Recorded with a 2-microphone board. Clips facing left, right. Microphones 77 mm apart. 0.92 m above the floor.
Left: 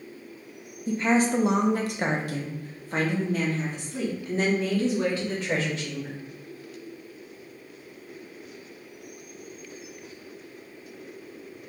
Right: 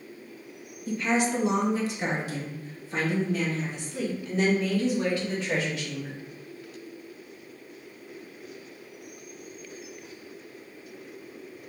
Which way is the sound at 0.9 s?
30° left (ahead or behind).